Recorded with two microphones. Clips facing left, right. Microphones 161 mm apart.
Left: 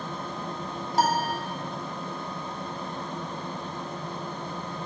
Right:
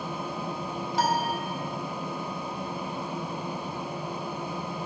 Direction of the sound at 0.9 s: 45° left (ahead or behind).